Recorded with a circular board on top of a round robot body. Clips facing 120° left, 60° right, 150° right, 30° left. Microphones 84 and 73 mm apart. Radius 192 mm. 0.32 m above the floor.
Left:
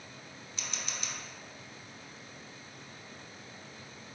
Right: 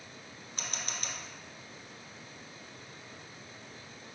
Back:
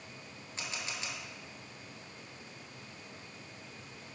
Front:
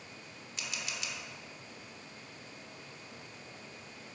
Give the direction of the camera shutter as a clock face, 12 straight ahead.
3 o'clock.